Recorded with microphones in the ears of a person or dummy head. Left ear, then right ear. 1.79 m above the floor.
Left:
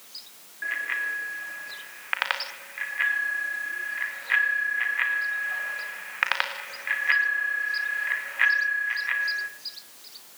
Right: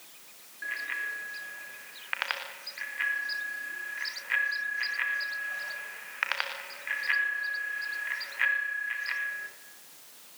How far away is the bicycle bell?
About 3.5 m.